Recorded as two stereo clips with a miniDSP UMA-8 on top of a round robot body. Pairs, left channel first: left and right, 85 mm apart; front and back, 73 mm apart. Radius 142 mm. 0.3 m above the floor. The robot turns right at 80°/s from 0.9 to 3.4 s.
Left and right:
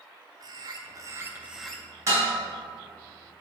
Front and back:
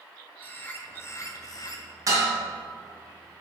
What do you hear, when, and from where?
0.4 s a bird: 60° right, 1.1 m; by 1.9 s 15° left, 1.1 m
2.1 s dishes clattering: 145° right, 2.5 m; by 2.3 s 125° right, 2.5 m